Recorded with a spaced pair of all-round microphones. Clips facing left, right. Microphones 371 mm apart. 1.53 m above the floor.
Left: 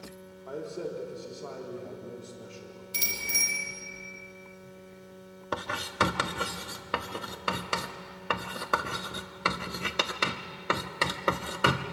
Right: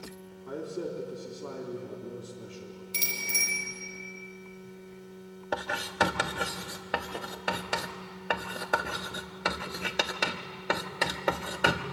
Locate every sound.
0.5 s a man speaking: 25° right (ahead or behind), 3 m
2.9 s a bicycle bell: 25° left (ahead or behind), 5 m
5.5 s writing: 10° left (ahead or behind), 1.0 m